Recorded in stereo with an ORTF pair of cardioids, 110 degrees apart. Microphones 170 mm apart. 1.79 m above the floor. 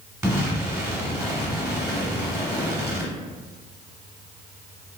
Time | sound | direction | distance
0.2 | an explosion | 15° right | 1.4 m